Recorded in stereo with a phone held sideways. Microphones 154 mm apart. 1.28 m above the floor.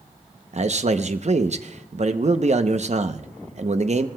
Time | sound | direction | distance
0.5 | a man speaking | 50° right (ahead or behind) | 0.7 m